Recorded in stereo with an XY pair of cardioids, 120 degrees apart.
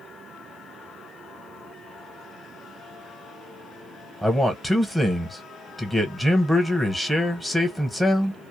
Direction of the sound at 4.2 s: Straight ahead.